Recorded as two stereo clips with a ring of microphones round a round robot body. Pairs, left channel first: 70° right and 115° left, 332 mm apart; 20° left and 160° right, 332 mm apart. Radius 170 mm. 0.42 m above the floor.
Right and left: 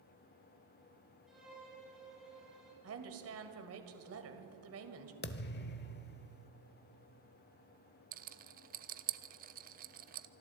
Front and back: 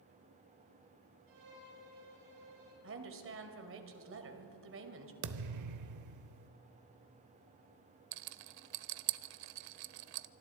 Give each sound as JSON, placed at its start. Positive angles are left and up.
{"t": 1.3, "sound": "a violin", "azimuth_deg": -160, "distance_m": 8.0}
{"t": 2.8, "sound": "a woman speaking", "azimuth_deg": 155, "distance_m": 2.0}
{"t": 5.2, "sound": "a thud", "azimuth_deg": -125, "distance_m": 0.9}
{"t": 8.1, "sound": "a rattle", "azimuth_deg": 180, "distance_m": 0.6}